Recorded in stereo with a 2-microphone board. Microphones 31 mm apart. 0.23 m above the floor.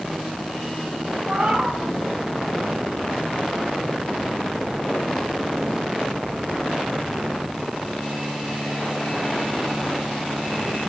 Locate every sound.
1.3 s a cat meowing: 25° right (ahead or behind), 3.5 m